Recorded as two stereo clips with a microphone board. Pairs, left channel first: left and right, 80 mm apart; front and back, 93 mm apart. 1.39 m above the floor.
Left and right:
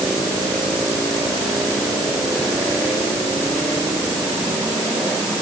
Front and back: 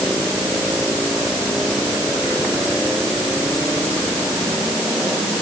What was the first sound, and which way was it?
Only background noise.